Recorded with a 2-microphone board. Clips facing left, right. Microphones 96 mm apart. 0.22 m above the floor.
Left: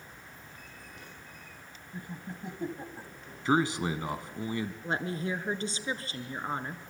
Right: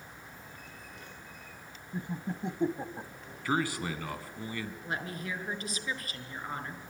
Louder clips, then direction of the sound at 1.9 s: Right 5 dB; 25° right (ahead or behind).